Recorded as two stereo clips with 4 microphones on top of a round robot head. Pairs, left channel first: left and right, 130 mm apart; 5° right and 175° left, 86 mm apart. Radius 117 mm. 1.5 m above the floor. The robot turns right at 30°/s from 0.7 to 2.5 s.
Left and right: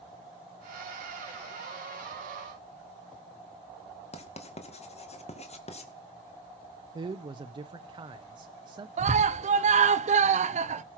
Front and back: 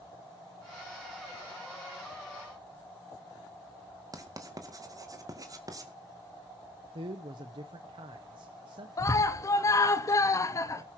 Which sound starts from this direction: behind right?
A man speaking, at 7.0 s.